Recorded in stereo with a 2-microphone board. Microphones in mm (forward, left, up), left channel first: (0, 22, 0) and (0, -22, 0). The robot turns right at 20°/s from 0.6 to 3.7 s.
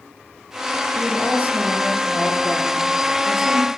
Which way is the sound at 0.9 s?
50° right.